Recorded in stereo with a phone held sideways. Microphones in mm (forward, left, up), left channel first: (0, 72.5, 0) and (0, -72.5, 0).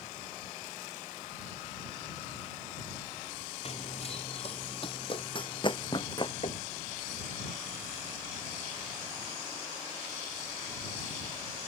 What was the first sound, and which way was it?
Running footsteps, 45° left (ahead or behind).